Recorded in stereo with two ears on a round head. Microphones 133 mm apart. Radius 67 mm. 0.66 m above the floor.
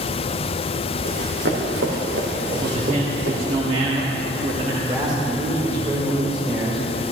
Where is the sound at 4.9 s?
30° right (ahead or behind), 2 m.